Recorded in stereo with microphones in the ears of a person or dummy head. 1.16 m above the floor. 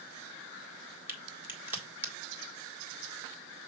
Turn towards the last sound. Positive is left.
turn(degrees=-15)  # may be behind; listen again after turning